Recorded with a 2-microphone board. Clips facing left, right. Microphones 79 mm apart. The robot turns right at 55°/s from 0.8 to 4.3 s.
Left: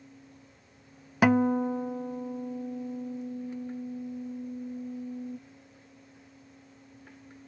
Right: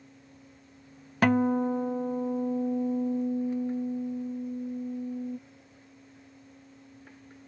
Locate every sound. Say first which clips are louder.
1.2 s a guitar: left 1 dB; 170° left; by 5.4 s 20° right